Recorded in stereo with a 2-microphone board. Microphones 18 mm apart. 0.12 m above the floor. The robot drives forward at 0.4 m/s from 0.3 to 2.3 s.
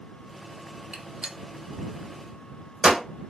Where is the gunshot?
80° right, 0.7 m; by 3.0 s 50° right (ahead or behind), 0.9 m.